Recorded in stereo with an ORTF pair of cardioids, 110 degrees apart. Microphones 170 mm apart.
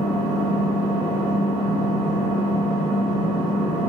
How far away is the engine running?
About 1.3 m.